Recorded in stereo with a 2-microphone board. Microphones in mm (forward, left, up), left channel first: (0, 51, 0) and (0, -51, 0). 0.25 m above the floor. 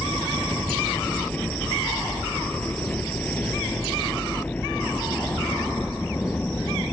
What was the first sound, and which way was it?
A helicopter, 15° left (ahead or behind).